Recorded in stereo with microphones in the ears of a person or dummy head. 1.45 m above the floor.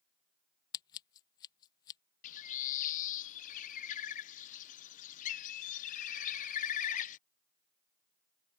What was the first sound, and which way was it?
Scissors, 20° left (ahead or behind).